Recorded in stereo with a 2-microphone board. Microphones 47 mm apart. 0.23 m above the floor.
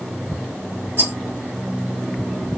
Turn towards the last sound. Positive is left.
turn(degrees=-45)  # may be behind; listen again after turning